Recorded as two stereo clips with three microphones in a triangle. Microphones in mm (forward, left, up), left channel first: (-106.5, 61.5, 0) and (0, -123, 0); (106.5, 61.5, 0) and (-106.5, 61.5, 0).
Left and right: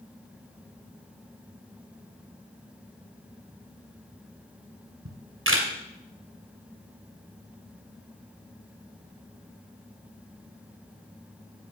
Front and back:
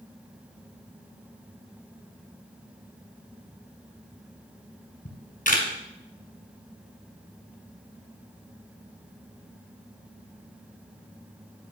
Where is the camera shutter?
50° right, 2 m.